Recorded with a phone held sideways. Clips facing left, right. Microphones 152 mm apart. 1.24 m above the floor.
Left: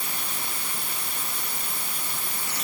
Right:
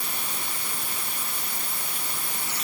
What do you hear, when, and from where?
Only background noise.